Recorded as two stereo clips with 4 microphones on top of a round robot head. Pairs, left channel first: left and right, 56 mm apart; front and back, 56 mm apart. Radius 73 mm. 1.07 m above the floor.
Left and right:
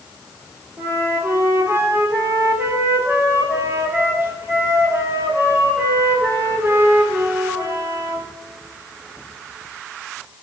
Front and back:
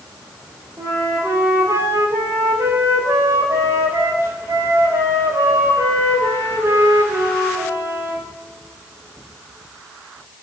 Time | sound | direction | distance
0.8 | a flute | 135° right | 4.5 m